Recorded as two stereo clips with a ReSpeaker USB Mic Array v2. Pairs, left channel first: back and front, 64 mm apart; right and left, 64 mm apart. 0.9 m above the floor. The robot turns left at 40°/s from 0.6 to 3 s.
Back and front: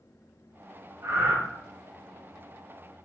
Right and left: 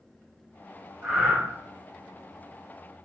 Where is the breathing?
20° left, 1.3 m; by 1.4 s 5° left, 1.3 m.